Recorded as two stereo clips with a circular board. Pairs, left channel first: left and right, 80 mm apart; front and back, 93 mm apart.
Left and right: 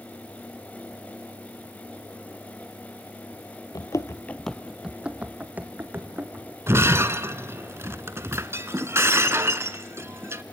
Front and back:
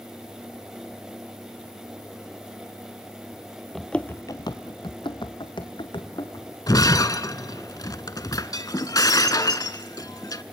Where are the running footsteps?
90° left, 0.8 m; by 6.5 s 30° right, 2.5 m.